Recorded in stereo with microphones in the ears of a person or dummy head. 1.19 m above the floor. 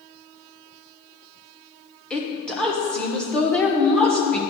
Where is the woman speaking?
5° left (ahead or behind), 1.1 m.